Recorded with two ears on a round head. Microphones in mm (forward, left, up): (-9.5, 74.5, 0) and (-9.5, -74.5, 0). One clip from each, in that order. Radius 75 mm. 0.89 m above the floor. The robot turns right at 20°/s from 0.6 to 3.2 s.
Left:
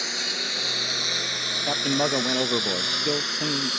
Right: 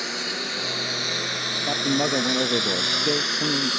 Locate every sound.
0.0 s a lawn mower: 40° left (ahead or behind); by 3.8 s 15° left (ahead or behind)
1.7 s a man speaking: 105° left; by 3.7 s 135° left